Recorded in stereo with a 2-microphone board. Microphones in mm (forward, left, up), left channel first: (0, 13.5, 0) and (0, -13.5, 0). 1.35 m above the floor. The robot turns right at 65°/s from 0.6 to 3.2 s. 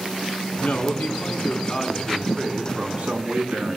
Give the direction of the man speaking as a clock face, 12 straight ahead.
9 o'clock.